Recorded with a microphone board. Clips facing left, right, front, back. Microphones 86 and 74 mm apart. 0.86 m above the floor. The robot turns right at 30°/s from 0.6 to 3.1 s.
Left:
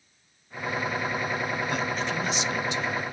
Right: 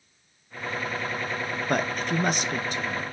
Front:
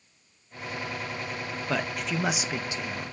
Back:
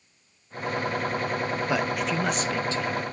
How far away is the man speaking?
About 0.7 m.